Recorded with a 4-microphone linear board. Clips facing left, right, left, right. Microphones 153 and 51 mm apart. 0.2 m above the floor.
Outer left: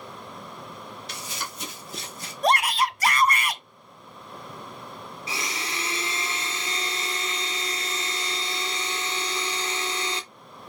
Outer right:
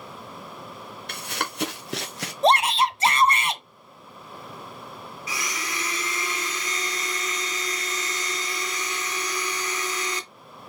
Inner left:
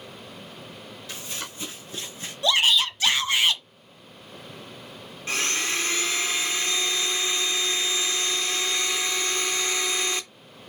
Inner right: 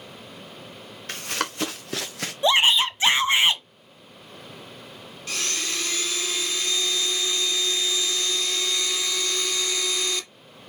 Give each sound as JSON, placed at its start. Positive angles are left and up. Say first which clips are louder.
{"t": 1.1, "sound": "running footsteps", "louder": "outer right 8 dB, inner right 9 dB", "side_deg": -60, "distance_m": 2.0}
{"t": 2.4, "sound": "a shout", "louder": "outer right 3 dB, inner right 2 dB", "side_deg": -25, "distance_m": 1.4}
{"t": 5.3, "sound": "a blender", "louder": "even, inner left 3 dB", "side_deg": 30, "distance_m": 2.0}